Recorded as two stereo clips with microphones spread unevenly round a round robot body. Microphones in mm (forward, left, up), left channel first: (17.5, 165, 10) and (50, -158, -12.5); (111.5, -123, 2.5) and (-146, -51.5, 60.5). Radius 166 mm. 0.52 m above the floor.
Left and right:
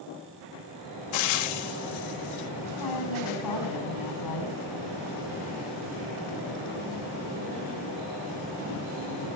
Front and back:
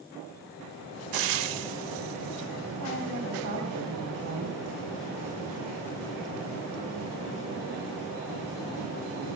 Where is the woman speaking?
125° left, 4.5 m.